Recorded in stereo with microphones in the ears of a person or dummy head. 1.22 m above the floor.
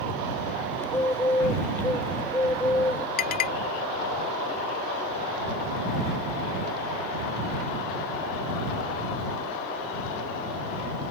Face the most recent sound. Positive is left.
turn(degrees=45)  # may be behind; listen again after turning